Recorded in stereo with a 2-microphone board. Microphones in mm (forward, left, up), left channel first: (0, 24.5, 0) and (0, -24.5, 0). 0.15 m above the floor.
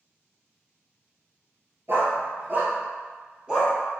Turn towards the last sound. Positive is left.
turn(degrees=-15)  # may be behind; listen again after turning